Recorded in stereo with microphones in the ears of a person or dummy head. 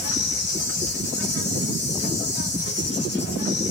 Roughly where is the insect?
Left.